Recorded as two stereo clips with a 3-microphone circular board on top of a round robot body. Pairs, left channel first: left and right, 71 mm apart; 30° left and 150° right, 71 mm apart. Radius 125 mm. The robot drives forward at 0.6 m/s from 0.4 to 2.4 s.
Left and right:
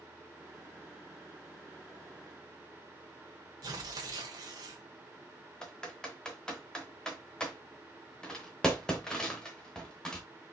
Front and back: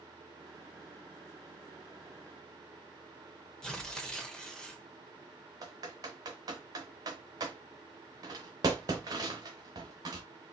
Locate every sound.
3.6 s tearing paper: 50° right, 0.8 m
5.6 s typing on a keyboard: 170° left, 0.7 m